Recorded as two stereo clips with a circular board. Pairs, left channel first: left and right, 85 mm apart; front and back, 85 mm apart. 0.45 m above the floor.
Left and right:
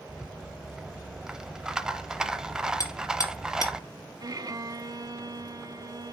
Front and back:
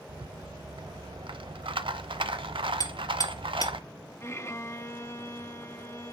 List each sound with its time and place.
0.1 s a rattle: 170° right, 0.6 m
2.8 s hammering: 40° left, 3 m
4.2 s a violin: 55° right, 0.6 m